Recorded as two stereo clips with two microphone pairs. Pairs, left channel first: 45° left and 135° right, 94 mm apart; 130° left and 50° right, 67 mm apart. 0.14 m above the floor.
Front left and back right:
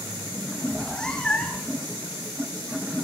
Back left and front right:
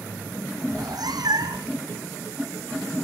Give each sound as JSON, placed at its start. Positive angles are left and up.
{"t": 0.7, "sound": "a cat meowing", "azimuth_deg": -40, "distance_m": 0.8}